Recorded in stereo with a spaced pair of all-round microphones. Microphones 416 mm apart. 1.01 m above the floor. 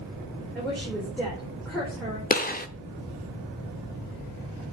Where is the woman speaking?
Centre (ahead or behind), 4 m.